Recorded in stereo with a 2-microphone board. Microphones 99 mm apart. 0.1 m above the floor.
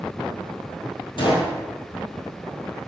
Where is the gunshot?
55° left (ahead or behind), 2 m.